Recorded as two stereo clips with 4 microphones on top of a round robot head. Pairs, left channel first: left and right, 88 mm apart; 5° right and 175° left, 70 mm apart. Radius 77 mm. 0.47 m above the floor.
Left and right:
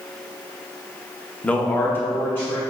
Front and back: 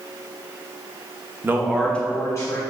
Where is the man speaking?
160° left, 0.8 m; by 2.6 s 25° left, 1.3 m.